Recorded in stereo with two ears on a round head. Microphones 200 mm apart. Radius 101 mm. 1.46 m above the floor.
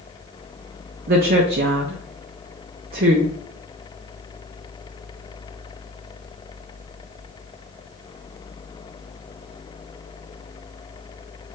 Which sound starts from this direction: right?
A woman speaking, at 1.1 s.